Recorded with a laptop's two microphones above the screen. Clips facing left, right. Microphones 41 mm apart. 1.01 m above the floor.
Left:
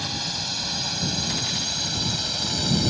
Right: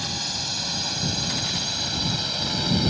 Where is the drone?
5° left (ahead or behind); by 2.9 s 10° right (ahead or behind).